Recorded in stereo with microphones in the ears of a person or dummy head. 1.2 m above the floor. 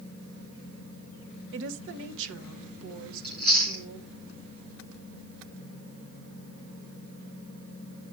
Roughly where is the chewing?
Right.